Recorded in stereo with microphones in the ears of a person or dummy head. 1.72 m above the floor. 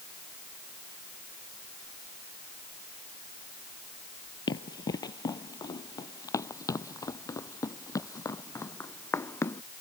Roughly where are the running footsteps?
Left.